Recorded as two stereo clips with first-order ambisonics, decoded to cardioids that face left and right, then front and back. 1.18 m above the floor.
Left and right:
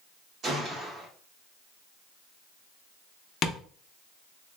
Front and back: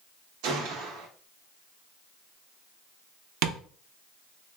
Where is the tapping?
150° left, 0.5 m.